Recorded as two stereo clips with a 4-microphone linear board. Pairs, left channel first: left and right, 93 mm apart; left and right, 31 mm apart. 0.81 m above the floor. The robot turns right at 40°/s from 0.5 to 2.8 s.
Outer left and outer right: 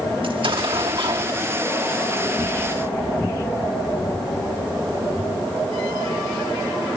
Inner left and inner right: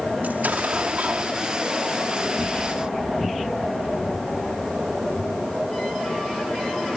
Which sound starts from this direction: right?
An explosion, at 0.2 s.